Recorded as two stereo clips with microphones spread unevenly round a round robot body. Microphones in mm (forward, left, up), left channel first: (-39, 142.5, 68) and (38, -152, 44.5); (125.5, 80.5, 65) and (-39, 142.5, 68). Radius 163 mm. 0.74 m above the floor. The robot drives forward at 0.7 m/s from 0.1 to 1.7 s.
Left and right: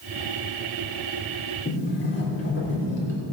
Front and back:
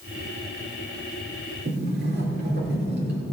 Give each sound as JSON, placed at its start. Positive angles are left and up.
{"t": 1.6, "sound": "a sliding door", "azimuth_deg": 160, "distance_m": 3.0}